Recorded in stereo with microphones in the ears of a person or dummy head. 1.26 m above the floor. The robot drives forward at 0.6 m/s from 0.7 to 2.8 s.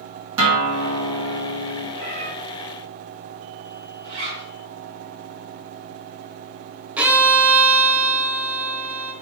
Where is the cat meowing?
45° right (ahead or behind), 2 m; by 2.3 s 40° right (ahead or behind), 2 m.